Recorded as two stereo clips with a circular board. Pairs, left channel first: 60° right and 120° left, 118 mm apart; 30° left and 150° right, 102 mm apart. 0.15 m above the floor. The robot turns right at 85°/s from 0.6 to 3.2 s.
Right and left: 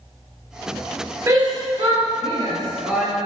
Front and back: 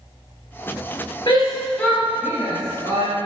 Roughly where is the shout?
Ahead left.